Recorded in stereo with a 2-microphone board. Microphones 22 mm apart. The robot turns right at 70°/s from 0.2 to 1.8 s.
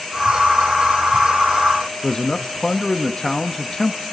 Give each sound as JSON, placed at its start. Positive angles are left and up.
{"t": 2.0, "sound": "a man speaking", "side_deg": 25, "distance_m": 0.8}